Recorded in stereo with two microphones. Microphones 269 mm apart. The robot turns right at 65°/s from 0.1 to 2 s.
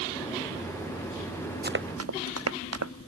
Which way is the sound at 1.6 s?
35° right (ahead or behind).